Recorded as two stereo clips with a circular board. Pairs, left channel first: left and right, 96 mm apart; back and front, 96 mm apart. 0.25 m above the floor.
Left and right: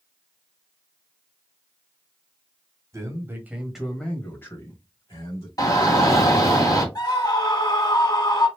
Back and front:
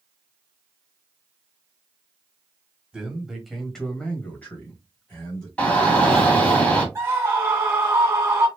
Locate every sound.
2.9 s a man speaking: 75° right, 1.4 m; by 5.5 s 120° left, 2 m
5.6 s a shout: 110° left, 2 m
7.0 s a scream: 55° left, 2.0 m